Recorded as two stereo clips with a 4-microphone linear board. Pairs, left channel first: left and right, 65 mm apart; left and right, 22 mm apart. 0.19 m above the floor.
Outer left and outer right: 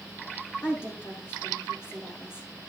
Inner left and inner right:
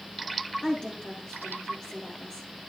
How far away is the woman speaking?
About 7.5 m.